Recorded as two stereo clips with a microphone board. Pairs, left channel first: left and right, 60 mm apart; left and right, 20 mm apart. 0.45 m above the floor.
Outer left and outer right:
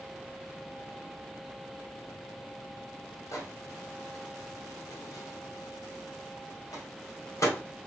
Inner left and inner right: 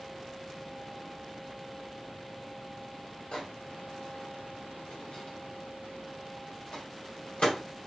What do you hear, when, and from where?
3.3 s a microwave: 60° left (ahead or behind), 2 m